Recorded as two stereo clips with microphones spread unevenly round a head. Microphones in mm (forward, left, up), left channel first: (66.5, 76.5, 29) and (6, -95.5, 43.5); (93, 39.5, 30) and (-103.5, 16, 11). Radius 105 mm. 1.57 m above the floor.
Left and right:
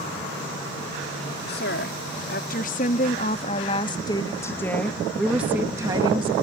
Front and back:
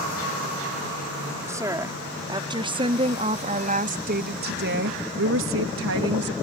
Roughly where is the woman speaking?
Left.